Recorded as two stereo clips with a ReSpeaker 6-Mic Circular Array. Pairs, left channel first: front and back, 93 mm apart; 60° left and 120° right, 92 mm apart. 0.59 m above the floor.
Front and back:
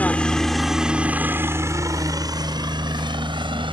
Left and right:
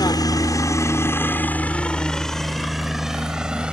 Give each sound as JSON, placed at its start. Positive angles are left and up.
{"t": 0.0, "sound": "a helicopter", "azimuth_deg": 70}